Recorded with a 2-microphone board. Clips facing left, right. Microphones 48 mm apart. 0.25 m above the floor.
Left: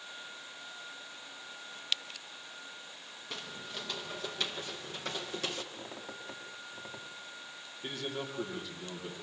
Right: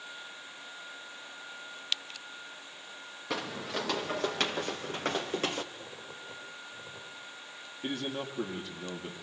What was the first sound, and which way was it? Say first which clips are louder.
Footsteps: right 9 dB; 75° right (ahead or behind).